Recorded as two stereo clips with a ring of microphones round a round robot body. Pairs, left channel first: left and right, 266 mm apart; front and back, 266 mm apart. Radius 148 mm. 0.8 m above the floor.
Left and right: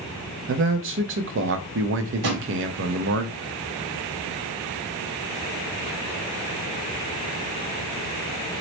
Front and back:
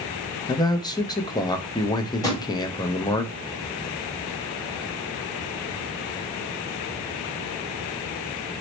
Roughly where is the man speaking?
Right.